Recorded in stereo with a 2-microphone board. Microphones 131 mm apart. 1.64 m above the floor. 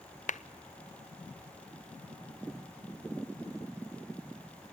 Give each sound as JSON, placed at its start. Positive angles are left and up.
{"t": 0.3, "sound": "a clap", "side_deg": 65, "distance_m": 0.6}